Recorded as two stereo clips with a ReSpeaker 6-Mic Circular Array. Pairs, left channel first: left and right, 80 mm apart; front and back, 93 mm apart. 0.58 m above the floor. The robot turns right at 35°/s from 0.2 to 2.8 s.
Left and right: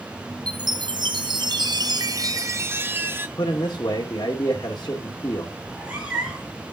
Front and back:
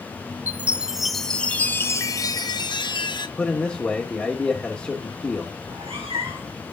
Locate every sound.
0.5 s a chime: 110° right, 0.8 m; by 3.3 s 30° right, 0.8 m
3.4 s a man speaking: 70° left, 1.7 m
5.6 s a cat meowing: 160° right, 4 m